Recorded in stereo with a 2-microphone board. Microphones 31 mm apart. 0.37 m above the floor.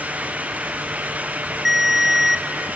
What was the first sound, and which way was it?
A ringtone, 5° right (ahead or behind).